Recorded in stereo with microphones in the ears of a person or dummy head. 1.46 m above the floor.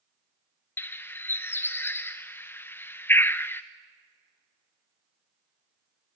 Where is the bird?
10° left (ahead or behind), 0.6 m.